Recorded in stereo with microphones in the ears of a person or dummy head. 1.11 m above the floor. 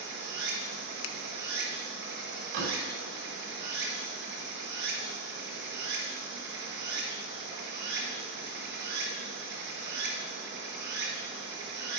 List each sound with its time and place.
0.0 s running water: 55° right (ahead or behind), 3 m
1.0 s a finger snap: 75° left (ahead or behind), 0.9 m
2.5 s a door slam: 70° right (ahead or behind), 3 m